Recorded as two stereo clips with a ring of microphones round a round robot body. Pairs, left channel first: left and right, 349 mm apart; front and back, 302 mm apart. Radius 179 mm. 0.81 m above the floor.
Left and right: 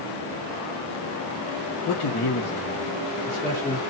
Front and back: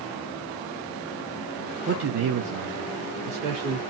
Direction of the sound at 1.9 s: 125° left.